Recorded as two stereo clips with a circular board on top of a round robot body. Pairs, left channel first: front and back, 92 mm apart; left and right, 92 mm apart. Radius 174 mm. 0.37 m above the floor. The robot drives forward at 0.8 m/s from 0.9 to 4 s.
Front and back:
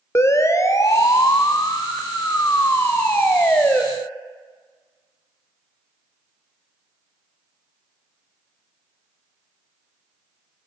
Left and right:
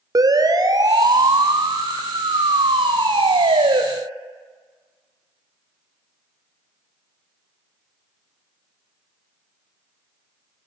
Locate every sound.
0.1 s a siren: 55° right, 2.5 m; by 3.8 s 75° right, 3.5 m